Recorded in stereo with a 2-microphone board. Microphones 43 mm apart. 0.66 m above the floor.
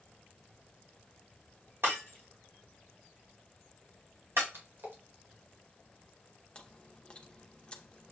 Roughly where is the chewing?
Left.